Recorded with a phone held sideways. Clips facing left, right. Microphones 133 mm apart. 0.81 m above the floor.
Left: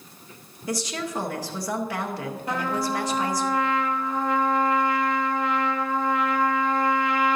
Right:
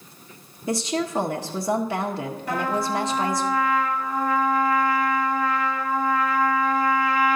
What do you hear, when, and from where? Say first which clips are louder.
0.7 s a woman speaking: right 5 dB; 25° right (ahead or behind), 0.7 m
2.5 s a trumpet: right 2 dB; 25° left (ahead or behind), 1.1 m